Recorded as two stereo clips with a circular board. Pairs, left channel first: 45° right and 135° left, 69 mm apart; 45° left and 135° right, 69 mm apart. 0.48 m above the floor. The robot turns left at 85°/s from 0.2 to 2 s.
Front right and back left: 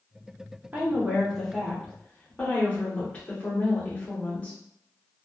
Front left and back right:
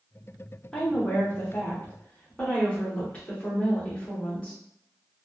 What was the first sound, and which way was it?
A woman speaking, 105° left.